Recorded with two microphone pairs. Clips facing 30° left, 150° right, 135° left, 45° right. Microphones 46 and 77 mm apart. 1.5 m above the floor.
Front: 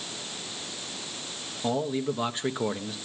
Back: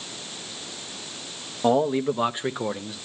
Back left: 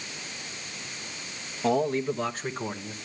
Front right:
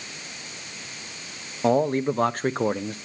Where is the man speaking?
100° right, 1.0 m; by 3.0 s 55° right, 1.1 m.